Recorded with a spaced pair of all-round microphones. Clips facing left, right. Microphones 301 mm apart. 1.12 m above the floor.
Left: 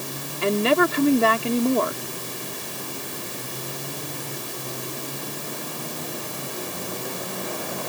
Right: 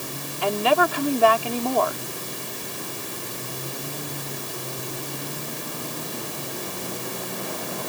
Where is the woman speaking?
25° left (ahead or behind).